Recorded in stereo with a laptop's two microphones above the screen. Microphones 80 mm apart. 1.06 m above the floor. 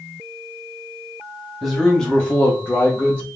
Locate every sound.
1.6 s a man speaking: centre (ahead or behind), 0.9 m; by 3.3 s 20° left (ahead or behind), 1.1 m